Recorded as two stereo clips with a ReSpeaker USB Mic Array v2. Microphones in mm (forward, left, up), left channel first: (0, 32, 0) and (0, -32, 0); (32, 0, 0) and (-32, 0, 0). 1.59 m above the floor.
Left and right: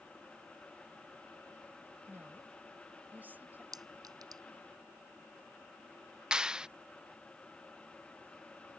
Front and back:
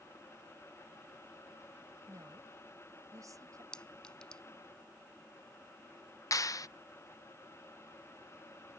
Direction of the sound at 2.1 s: 150° right.